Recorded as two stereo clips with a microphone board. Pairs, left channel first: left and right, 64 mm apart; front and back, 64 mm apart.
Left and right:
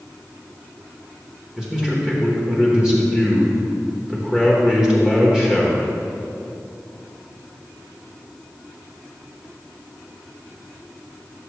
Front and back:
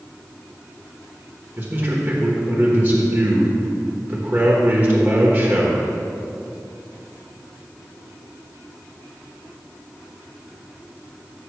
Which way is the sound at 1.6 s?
160° right.